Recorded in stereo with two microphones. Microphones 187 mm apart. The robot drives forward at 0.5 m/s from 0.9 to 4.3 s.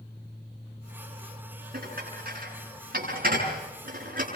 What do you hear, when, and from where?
1.7 s dishes clattering: 55° right (ahead or behind), 8.5 m; by 4.3 s 50° right (ahead or behind), 9 m